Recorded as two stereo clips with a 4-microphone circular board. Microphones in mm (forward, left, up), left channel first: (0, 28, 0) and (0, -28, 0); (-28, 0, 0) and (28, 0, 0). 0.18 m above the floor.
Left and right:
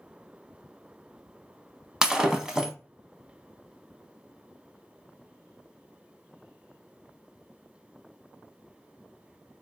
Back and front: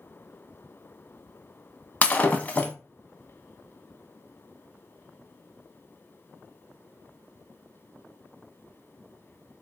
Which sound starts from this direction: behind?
Breaking glass, at 2.0 s.